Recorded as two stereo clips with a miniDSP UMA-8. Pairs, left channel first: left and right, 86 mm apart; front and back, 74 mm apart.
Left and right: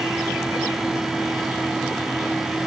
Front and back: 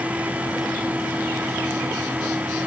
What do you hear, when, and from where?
Only background noise.